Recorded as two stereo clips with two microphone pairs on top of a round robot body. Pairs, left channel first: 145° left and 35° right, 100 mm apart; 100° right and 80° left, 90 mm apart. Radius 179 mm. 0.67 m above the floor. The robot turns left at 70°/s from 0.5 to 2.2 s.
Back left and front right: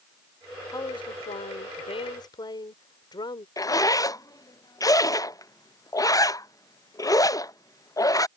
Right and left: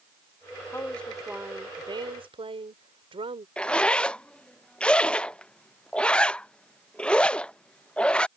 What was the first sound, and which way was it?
A woman speaking, 160° right.